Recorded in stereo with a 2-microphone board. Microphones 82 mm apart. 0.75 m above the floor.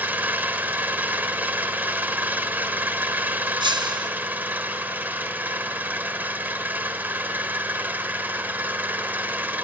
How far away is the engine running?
About 1.2 m.